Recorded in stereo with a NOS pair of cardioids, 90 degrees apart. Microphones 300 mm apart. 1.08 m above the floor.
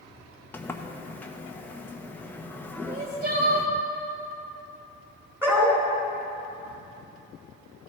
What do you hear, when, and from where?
0.5 s a sliding door: 5° left, 0.9 m
2.9 s crying: 30° right, 2 m
5.4 s a dog barking: 10° right, 2.5 m